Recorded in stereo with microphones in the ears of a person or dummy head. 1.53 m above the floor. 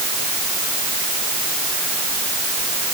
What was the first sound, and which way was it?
Only background noise.